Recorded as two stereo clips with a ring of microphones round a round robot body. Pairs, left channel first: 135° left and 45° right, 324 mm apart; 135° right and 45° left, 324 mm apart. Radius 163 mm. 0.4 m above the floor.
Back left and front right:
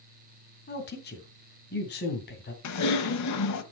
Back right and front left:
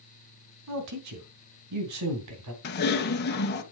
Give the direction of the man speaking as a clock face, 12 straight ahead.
9 o'clock.